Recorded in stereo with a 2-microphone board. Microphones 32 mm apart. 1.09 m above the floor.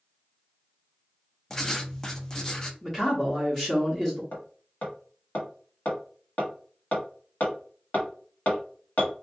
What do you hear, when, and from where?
1.5 s writing: 20° left (ahead or behind), 0.6 m
2.8 s a man speaking: 15° left (ahead or behind), 1.0 m
4.3 s hammering: 75° left (ahead or behind), 1.6 m